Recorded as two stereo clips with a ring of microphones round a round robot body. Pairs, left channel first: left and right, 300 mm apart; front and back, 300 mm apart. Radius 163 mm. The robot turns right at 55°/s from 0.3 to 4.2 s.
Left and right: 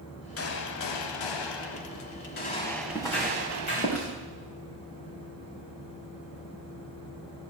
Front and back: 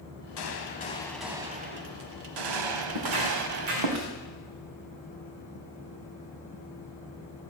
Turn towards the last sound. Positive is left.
turn(degrees=-140)